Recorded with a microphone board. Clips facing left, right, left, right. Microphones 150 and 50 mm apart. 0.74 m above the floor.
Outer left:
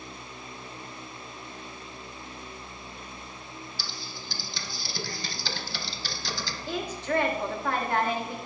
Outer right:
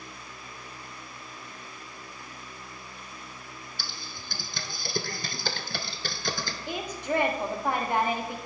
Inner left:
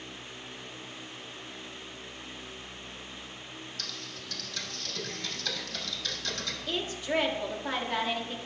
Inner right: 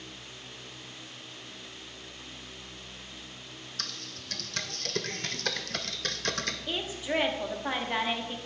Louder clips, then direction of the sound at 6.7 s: Outer left 1 dB, inner left 3 dB; 15° right (ahead or behind).